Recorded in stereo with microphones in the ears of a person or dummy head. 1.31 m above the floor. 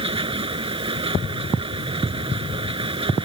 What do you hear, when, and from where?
0.0 s a machine running: 25° right (ahead or behind)